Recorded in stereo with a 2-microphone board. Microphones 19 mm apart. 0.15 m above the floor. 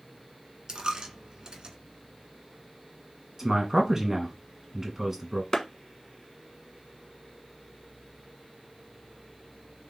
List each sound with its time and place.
0.7 s a dropped coin: 45° right (ahead or behind), 0.8 m
3.4 s a man speaking: 25° right (ahead or behind), 1.1 m
5.5 s a clap: 25° left (ahead or behind), 1.1 m